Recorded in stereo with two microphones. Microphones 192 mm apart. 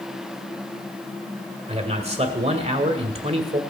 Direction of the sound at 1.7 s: 35° right (ahead or behind).